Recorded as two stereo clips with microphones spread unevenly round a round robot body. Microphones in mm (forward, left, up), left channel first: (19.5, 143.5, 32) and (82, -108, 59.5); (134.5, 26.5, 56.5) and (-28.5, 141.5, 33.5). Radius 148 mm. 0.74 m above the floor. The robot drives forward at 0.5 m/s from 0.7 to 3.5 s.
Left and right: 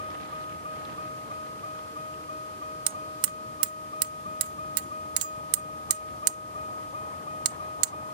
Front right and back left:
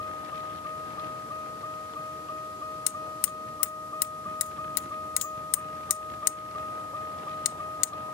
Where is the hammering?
35° right; by 7.9 s 45° right.